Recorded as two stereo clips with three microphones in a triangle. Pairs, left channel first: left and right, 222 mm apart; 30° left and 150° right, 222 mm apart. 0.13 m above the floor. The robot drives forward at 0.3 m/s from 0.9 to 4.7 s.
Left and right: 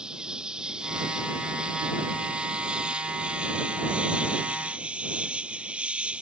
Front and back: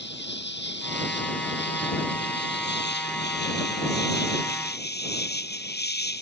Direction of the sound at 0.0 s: 5° right.